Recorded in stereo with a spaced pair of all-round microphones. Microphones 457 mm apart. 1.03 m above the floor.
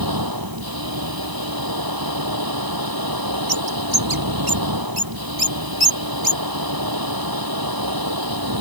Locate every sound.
0.0 s a machine running: 50° right (ahead or behind)
3.5 s a bird: 55° right (ahead or behind)